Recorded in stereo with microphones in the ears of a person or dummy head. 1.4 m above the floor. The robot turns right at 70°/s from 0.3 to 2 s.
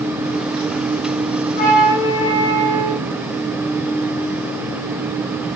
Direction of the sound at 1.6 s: 40° left.